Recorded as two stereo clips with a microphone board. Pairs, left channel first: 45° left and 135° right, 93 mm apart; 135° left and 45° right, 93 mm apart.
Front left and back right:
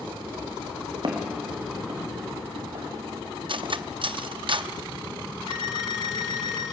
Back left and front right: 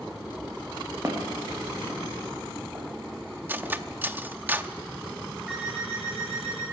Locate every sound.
1.0 s footsteps: 105° right, 3.5 m; by 3.7 s 115° right, 4.5 m
3.5 s cutlery clinking: 115° right, 0.6 m
5.5 s an alarm clock: 130° right, 6.5 m